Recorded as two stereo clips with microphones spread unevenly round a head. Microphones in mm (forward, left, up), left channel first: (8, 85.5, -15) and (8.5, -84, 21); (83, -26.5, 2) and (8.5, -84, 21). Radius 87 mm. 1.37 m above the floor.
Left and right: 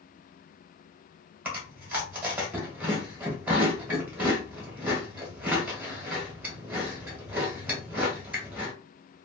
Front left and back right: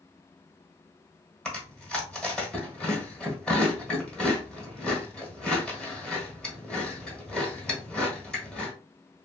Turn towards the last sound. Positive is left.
turn(degrees=-55)